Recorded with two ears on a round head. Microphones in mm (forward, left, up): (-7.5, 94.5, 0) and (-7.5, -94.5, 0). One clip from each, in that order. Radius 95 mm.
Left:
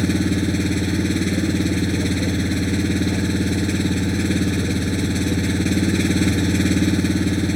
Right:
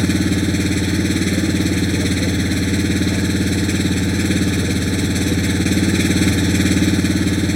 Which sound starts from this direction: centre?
An engine running, at 0.0 s.